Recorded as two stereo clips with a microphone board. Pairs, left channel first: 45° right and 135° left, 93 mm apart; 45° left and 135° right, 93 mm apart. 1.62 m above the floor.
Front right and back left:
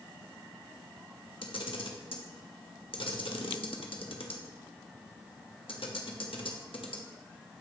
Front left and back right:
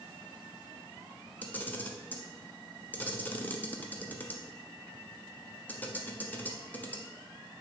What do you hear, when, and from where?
1.4 s a camera shutter: 30° right, 0.8 m